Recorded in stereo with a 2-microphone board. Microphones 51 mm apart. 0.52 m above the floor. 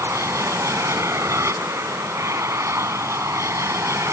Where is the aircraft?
70° right (ahead or behind).